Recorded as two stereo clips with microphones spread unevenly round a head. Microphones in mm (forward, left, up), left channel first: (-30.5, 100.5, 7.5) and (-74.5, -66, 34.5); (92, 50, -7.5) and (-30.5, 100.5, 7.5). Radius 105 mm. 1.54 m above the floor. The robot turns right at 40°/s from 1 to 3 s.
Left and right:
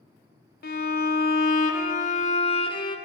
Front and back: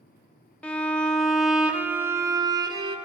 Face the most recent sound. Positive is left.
turn(degrees=140)